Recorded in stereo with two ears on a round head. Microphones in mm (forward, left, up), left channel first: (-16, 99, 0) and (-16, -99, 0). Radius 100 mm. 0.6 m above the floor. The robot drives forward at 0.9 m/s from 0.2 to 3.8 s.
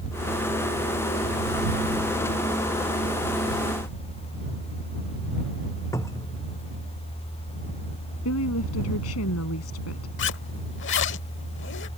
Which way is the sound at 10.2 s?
55° left (ahead or behind).